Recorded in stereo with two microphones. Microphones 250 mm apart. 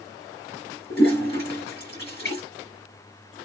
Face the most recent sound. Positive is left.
turn(degrees=45)  # may be behind; listen again after turning